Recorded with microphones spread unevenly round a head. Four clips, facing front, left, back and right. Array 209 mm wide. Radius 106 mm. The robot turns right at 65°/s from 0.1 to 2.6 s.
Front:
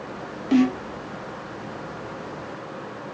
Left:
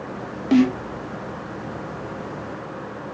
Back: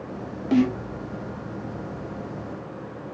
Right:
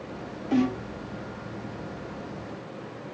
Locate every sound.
0.5 s a snare drum: 80° left, 0.6 m; by 0.8 s 95° left, 0.6 m